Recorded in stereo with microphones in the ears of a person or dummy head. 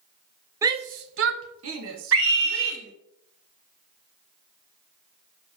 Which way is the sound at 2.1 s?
75° right (ahead or behind).